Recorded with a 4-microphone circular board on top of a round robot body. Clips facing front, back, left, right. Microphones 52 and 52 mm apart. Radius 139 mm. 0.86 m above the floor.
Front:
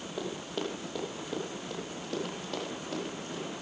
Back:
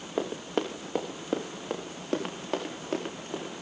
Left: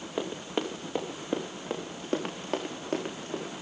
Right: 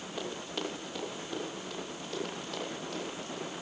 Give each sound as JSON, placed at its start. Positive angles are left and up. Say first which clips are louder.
{"t": 0.2, "sound": "running footsteps", "louder": "back 6 dB, left 6 dB", "azimuth_deg": 160, "distance_m": 3.0}